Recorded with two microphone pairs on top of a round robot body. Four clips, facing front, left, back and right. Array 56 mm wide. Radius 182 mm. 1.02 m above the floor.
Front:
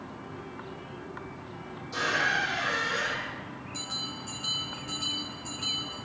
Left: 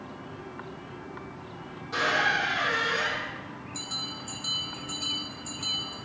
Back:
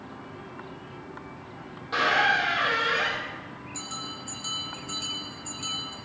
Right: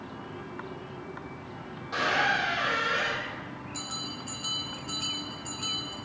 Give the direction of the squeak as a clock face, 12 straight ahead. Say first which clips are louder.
Left 1 dB, back 5 dB; 6 o'clock.